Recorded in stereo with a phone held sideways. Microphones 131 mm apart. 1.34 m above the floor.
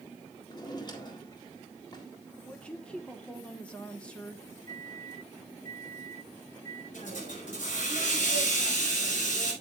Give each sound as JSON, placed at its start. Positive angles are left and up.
{"t": 0.5, "sound": "a drawer", "side_deg": 35, "distance_m": 1.9}
{"t": 2.4, "sound": "a woman speaking", "side_deg": 10, "distance_m": 1.2}
{"t": 4.7, "sound": "a microwave", "side_deg": 25, "distance_m": 5.5}
{"t": 6.9, "sound": "a hiss", "side_deg": 75, "distance_m": 5.5}